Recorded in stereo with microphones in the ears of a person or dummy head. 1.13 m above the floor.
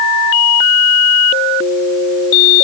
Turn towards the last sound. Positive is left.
No sound to turn to.